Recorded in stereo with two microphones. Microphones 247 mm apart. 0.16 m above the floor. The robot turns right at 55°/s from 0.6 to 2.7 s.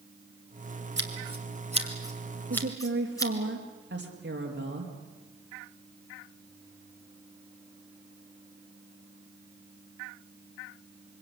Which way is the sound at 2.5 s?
55° right (ahead or behind).